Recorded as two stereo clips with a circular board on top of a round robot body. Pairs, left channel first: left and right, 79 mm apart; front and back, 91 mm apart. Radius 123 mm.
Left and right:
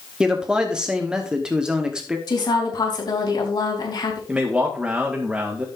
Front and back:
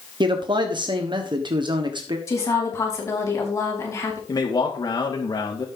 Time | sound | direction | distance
0.2 | a man speaking | 165° right | 1.5 m
2.3 | a woman speaking | 60° left | 4 m
4.3 | a man speaking | 20° right | 1.8 m